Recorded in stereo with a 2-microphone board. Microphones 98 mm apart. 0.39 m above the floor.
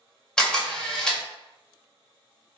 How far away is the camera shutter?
About 0.8 m.